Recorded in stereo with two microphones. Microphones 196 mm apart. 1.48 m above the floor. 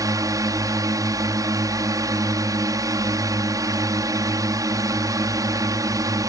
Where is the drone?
15° right (ahead or behind).